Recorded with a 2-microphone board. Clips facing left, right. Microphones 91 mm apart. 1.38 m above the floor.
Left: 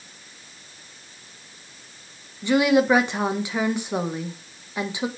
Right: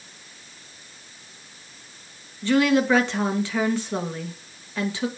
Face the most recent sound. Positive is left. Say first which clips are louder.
# left 1 dB
turn(degrees=15)  # may be behind; listen again after turning